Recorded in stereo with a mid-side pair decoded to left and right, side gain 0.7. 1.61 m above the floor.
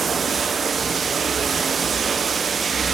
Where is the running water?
30° right, 0.8 m.